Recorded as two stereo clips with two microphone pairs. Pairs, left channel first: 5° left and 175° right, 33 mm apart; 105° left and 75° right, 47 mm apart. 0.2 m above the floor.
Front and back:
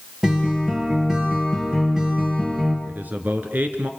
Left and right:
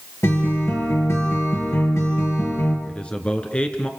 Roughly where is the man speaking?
Behind.